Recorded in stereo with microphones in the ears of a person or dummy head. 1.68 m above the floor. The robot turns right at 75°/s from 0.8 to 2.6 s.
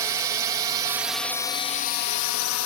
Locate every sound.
0.0 s a drone: 20° right (ahead or behind); by 2.7 s 80° left